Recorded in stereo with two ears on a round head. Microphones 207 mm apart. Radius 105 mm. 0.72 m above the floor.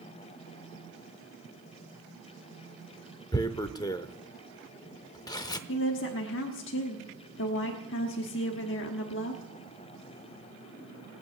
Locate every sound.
3.3 s tearing paper: 15° left (ahead or behind), 0.6 m
5.7 s a woman speaking: 55° left (ahead or behind), 1.3 m